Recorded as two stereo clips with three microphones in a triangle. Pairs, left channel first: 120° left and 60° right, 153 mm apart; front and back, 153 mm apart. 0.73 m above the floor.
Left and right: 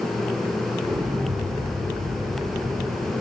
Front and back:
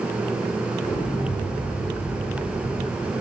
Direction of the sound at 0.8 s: 10° right.